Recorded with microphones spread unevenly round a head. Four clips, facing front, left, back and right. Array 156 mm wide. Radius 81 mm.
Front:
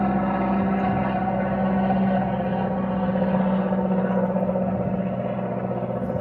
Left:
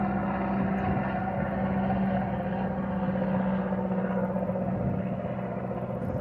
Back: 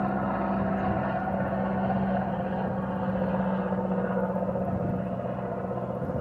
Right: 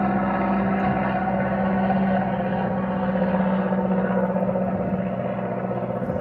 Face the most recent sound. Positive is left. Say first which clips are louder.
# right 7 dB, front 5 dB
turn(degrees=-45)